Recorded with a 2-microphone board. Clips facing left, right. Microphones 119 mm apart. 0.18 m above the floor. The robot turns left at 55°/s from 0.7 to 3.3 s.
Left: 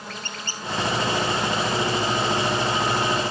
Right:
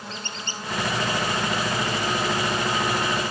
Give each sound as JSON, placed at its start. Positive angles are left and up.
{"t": 0.1, "sound": "a squeak", "side_deg": -25, "distance_m": 1.4}